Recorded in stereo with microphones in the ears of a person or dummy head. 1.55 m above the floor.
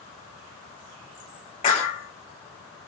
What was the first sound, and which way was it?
A clap, 30° left (ahead or behind).